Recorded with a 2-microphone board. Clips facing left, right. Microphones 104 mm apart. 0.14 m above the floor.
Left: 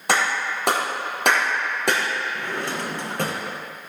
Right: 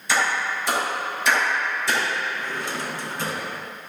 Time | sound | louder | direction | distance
0.1 | a clap | left 1 dB | 70° left (ahead or behind) | 4.5 m
2.4 | a drawer | left 2 dB | 60° left (ahead or behind) | 2.5 m